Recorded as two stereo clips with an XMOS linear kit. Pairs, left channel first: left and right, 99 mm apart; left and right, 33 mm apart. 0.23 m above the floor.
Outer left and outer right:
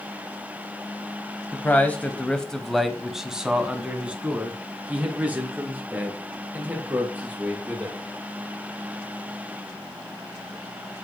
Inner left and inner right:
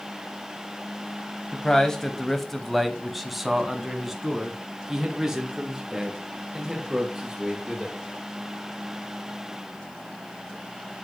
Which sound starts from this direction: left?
A man speaking, at 1.5 s.